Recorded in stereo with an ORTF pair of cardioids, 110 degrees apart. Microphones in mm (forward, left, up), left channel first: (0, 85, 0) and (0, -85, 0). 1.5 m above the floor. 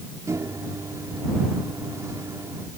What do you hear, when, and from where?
0.3 s a microwave: 15° right